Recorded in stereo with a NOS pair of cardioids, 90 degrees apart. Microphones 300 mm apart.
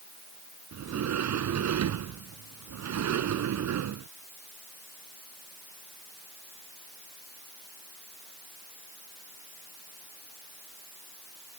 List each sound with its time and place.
0.7 s a sliding door: 65° right